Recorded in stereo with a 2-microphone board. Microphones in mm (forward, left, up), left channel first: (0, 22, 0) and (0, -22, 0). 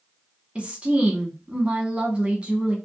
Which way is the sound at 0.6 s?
25° right (ahead or behind).